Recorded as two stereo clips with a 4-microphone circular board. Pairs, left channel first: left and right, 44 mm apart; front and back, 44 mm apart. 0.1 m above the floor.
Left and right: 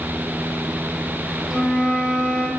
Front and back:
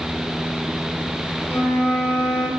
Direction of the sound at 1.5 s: 5° left.